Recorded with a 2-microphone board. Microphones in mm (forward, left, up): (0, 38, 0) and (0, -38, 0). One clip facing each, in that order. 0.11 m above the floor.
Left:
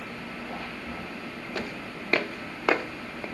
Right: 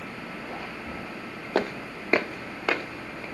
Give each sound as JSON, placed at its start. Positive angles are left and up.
{"t": 1.6, "sound": "footsteps", "side_deg": -50, "distance_m": 0.9}